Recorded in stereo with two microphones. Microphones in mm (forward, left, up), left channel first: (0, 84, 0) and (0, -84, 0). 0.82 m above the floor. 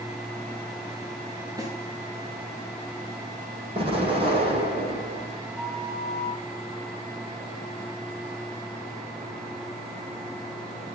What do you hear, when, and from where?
1.6 s a snare drum: 20° right (ahead or behind), 9.5 m
3.8 s an explosion: 35° right (ahead or behind), 8 m
5.5 s a flute: centre (ahead or behind), 7 m